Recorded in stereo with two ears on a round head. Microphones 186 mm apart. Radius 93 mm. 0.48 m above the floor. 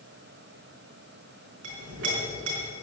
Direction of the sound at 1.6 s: 60° right (ahead or behind).